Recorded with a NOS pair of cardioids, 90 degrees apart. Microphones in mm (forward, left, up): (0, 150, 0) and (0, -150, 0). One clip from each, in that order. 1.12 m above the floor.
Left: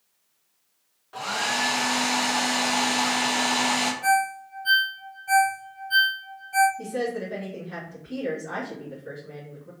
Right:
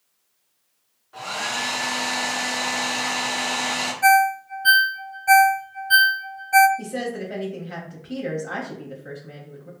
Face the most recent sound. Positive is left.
turn(degrees=-55)